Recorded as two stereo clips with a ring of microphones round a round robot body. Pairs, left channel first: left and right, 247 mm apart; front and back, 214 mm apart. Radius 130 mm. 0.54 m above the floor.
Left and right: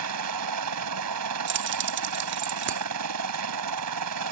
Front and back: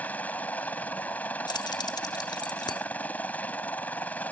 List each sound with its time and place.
0.0 s a helicopter: 85° right
1.5 s keys jangling: 65° right